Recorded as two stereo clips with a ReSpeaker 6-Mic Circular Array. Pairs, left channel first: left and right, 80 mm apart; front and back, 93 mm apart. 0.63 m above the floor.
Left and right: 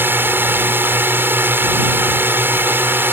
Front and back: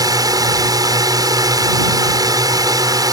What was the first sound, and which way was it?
A drone, 150° right.